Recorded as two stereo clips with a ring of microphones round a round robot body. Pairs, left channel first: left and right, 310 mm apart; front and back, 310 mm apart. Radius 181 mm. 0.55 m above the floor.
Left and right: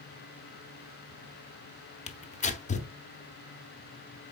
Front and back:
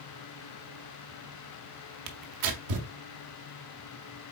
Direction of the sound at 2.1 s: 160° left.